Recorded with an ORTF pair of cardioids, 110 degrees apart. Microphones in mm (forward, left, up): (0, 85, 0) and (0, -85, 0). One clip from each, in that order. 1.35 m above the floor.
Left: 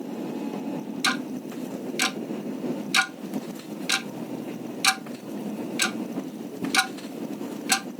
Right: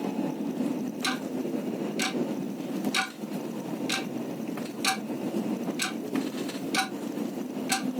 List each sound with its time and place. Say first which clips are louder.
1.0 s ticking: left 5 dB; 40° left, 0.9 m